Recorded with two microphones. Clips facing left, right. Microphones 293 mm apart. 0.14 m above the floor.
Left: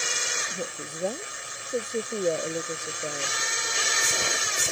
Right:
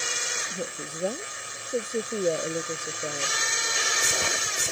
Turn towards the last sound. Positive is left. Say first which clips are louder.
# right 2 dB
turn(degrees=-5)  # may be behind; listen again after turning